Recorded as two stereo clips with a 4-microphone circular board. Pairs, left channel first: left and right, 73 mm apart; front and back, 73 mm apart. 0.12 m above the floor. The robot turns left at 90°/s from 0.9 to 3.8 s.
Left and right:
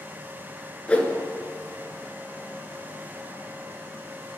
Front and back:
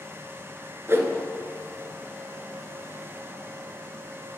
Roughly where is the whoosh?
Behind left.